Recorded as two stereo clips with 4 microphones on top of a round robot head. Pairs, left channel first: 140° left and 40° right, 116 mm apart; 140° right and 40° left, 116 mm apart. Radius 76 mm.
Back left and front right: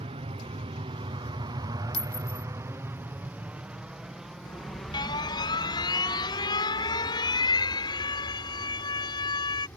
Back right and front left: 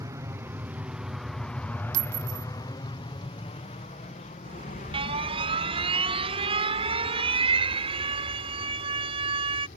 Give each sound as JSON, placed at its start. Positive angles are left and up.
{"t": 0.0, "sound": "an aircraft", "azimuth_deg": -20}
{"t": 1.9, "sound": "a clink", "azimuth_deg": 60}
{"t": 4.5, "sound": "an alarm", "azimuth_deg": 85}